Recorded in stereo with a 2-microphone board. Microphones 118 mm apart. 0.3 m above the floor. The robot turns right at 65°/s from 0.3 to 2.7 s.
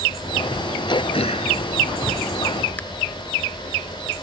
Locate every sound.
0.9 s throat clearing: 40° left (ahead or behind), 0.6 m; by 2.8 s 15° left (ahead or behind), 0.6 m